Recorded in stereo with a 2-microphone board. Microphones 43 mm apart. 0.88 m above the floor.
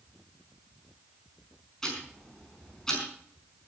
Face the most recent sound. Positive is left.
turn(degrees=15)  # may be behind; listen again after turning